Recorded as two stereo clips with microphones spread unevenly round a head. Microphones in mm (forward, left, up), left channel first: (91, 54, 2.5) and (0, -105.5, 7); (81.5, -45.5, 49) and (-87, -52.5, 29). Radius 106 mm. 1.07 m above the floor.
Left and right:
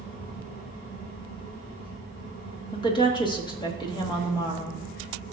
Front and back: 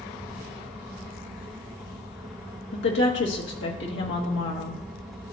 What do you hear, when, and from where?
0.0 s a fan: 100° left, 2.5 m
2.7 s a woman speaking: 5° right, 1.5 m